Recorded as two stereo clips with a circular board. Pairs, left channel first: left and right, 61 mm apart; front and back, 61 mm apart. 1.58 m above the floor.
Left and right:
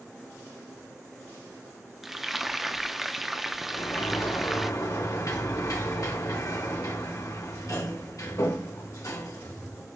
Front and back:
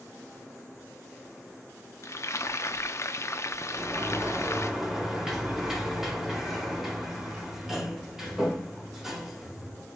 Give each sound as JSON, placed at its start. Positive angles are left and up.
{"t": 2.0, "sound": "frying", "azimuth_deg": -5, "distance_m": 0.5}
{"t": 3.7, "sound": "a sliding door", "azimuth_deg": 100, "distance_m": 2.5}